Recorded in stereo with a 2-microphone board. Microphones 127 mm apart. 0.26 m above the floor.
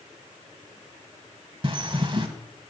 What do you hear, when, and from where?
1.6 s a bird: 40° right (ahead or behind), 0.9 m